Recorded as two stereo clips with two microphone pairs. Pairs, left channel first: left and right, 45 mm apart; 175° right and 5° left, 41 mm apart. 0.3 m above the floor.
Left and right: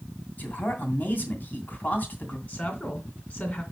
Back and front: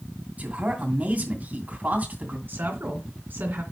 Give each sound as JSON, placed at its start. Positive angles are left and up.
{"t": 0.4, "sound": "a man speaking", "azimuth_deg": 45, "distance_m": 2.5}
{"t": 2.5, "sound": "a woman speaking", "azimuth_deg": 35, "distance_m": 2.5}